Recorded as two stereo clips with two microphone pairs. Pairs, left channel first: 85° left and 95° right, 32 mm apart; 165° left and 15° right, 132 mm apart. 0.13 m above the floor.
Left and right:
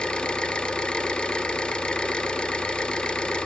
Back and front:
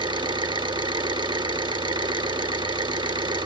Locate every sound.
0.0 s an engine running: 35° left, 1.0 m